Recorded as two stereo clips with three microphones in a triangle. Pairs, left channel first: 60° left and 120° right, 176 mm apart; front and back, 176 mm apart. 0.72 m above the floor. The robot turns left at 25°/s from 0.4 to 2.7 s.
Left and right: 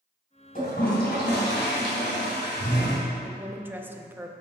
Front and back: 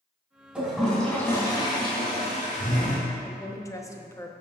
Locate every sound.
0.6 s a toilet flushing: 95° left, 3 m; by 3.0 s 45° left, 3 m
3.2 s a woman speaking: 50° right, 0.7 m